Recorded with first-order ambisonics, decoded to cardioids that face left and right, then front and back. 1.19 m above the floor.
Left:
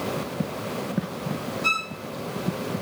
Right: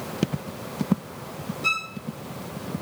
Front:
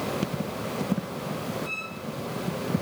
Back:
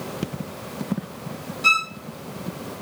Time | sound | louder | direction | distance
1.6 | a violin | left 1 dB, back 15 dB | straight behind | 0.5 m